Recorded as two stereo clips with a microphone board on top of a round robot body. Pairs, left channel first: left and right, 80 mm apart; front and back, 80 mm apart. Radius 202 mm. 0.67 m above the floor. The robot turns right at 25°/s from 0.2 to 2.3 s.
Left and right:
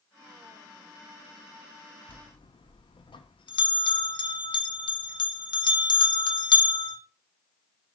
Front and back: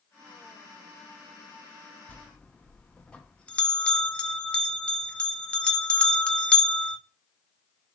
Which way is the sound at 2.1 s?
70° left.